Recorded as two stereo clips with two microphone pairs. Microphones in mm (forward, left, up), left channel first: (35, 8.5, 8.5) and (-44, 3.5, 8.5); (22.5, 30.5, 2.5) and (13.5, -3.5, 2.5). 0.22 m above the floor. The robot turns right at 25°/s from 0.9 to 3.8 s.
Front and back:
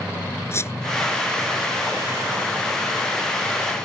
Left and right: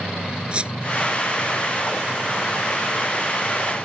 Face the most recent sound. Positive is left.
turn(degrees=20)